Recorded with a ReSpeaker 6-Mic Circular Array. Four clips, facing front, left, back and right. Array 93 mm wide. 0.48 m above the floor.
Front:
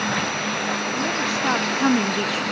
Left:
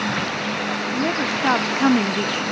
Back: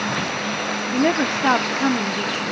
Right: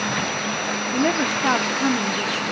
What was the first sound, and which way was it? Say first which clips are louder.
A woman speaking: right 3 dB, back 5 dB; 160° right.